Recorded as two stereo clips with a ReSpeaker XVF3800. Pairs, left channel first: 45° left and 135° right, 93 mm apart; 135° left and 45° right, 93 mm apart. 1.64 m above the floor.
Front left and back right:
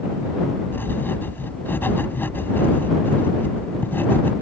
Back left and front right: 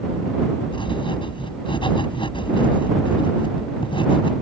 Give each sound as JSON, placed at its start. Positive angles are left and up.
{"t": 0.7, "sound": "writing", "azimuth_deg": 110}